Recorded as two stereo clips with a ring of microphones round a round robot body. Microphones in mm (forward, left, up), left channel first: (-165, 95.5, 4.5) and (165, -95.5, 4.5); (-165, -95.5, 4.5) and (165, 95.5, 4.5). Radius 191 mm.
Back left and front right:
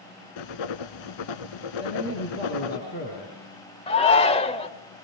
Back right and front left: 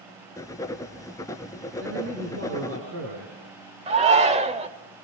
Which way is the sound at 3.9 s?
90° left.